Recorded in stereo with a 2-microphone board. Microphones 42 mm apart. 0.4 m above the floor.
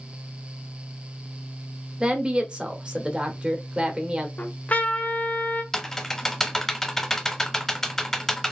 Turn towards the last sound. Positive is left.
turn(degrees=5)  # may be behind; listen again after turning